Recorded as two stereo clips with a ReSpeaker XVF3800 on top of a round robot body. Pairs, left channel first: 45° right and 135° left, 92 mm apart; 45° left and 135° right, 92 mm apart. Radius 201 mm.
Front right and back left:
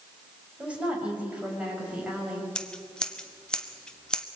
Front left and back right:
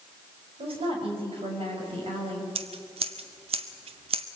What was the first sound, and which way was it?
A woman speaking, 145° right.